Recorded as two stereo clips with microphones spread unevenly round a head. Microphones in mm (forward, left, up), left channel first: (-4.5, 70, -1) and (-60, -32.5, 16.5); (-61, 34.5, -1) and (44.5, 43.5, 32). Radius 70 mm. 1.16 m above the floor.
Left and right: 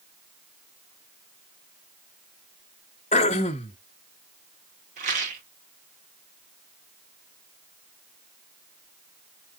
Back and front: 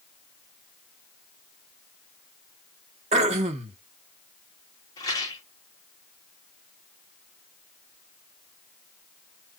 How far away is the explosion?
I don't hear an explosion.